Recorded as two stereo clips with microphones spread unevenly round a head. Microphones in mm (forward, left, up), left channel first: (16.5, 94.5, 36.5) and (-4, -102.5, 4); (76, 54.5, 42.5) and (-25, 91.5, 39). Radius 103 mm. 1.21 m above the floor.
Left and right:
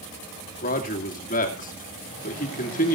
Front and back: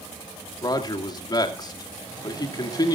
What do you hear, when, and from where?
0.6 s a man speaking: 30° left, 2.5 m